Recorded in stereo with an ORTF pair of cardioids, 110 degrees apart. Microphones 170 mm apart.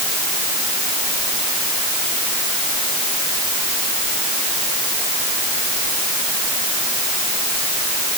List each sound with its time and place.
Only background noise.